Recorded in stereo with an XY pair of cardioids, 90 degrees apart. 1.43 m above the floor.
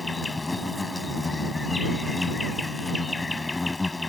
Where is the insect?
20° left.